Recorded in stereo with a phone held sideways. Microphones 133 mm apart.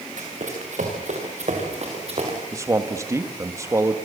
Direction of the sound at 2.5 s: 25° right (ahead or behind).